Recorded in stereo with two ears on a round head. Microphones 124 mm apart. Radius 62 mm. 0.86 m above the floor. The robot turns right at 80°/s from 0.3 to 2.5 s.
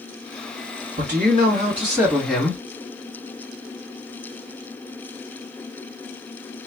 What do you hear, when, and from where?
1.0 s a man speaking: 105° right, 2.5 m; by 2.6 s 15° left, 2.5 m